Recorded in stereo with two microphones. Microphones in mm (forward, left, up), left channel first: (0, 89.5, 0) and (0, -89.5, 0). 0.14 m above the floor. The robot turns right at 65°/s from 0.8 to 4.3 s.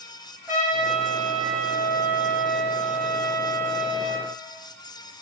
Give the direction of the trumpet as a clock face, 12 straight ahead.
1 o'clock.